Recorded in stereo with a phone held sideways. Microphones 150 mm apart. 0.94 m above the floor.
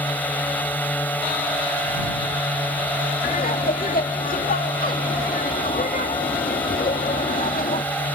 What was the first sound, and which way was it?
A drone, 10° left (ahead or behind).